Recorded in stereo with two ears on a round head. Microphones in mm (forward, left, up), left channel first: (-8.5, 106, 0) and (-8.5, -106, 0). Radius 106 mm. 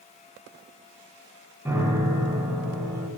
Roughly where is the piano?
Centre.